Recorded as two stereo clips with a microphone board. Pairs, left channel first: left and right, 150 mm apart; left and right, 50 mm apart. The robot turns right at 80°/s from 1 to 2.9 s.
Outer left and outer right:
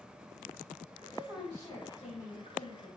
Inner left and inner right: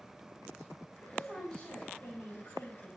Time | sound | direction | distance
1.0 | a woman speaking | 35° right | 5.5 m